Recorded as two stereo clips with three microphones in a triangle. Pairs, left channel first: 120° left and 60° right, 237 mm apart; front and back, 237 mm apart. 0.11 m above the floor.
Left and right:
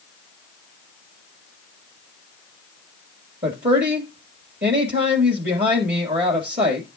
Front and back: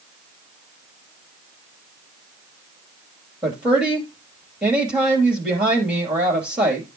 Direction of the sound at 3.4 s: 95° right.